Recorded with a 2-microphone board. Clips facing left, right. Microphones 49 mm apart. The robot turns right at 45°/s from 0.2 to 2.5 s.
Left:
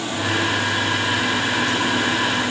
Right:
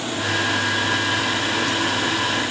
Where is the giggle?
No giggle in this recording.